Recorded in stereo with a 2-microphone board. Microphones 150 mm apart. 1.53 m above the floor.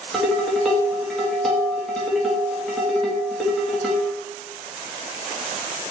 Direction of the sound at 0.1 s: 5° left (ahead or behind).